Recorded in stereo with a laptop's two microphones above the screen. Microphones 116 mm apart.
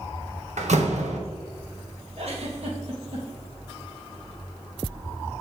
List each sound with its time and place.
0.6 s a door slam: 80° right, 1.1 m
2.2 s a giggle: 60° right (ahead or behind), 1.4 m